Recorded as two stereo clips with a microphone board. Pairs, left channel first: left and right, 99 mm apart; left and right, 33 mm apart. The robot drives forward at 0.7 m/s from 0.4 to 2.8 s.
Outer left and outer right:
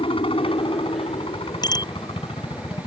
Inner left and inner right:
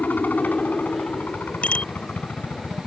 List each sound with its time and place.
0.0 s a helicopter: 60° left (ahead or behind); by 2.9 s 65° left (ahead or behind)
1.6 s a bicycle bell: 45° left (ahead or behind); by 1.9 s 40° left (ahead or behind)